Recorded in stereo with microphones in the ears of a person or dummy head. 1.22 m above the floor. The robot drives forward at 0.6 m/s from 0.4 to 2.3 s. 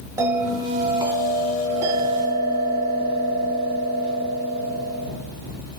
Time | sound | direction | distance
0.2 | a bell | 20° right (ahead or behind) | 1.6 m